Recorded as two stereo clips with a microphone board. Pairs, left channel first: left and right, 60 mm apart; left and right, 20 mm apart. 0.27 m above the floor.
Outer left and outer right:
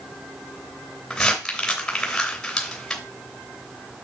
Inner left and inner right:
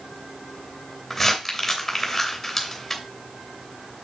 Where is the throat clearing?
I don't hear throat clearing.